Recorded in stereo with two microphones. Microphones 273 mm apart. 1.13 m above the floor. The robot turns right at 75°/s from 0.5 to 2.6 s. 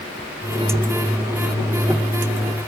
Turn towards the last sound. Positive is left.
No sound to turn to.